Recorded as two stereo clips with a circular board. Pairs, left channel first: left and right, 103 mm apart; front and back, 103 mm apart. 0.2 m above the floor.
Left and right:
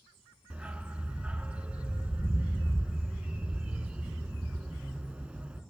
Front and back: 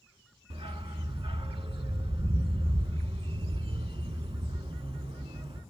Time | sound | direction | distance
0.5 | a dog barking | 165° right | 0.5 m